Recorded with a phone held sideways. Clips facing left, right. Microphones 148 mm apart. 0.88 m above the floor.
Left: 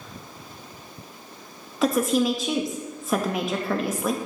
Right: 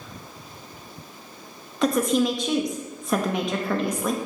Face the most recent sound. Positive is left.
turn(degrees=5)  # may be behind; listen again after turning